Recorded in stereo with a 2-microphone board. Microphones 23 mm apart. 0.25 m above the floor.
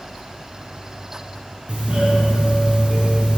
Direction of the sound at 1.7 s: 50° right (ahead or behind).